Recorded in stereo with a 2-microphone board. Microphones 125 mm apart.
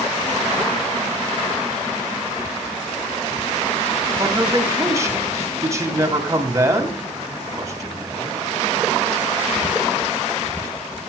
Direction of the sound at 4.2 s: 25° right (ahead or behind).